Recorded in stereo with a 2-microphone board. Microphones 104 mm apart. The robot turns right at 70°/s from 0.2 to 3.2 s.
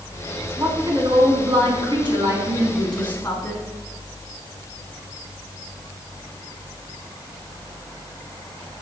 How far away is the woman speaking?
About 4 m.